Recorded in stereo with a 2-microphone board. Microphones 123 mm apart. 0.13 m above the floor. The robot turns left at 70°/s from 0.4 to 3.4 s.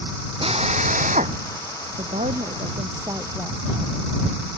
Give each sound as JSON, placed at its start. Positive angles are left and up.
{"t": 0.4, "sound": "a drill", "azimuth_deg": -45}
{"t": 2.0, "sound": "a woman speaking", "azimuth_deg": -65}